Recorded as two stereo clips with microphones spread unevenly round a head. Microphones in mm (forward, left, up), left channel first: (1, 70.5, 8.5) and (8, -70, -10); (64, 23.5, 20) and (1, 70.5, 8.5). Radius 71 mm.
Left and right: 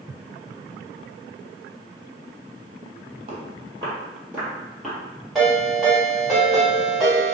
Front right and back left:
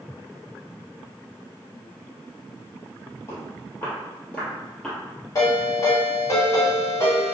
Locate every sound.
3.3 s footsteps: 45° right, 1.8 m; by 5.0 s 25° left, 1.7 m
5.3 s a ringtone: 5° left, 1.5 m